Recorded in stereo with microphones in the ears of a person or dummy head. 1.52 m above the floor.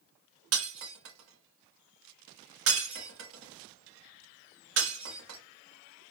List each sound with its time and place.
0.5 s breaking glass: 70° right (ahead or behind), 1.9 m